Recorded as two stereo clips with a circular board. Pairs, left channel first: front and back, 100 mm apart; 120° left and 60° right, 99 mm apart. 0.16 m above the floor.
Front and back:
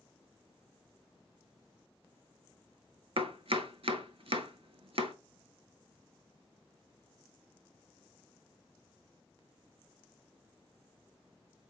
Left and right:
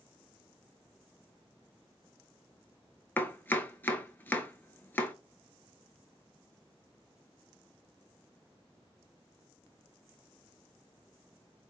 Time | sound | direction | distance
3.2 | chopping | 170° right | 0.5 m